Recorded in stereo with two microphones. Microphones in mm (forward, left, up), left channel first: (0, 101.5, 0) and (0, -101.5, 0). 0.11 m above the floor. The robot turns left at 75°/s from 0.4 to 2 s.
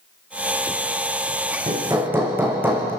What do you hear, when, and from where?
1.7 s hammering: 35° right (ahead or behind), 3 m; by 2.9 s 10° right (ahead or behind), 3 m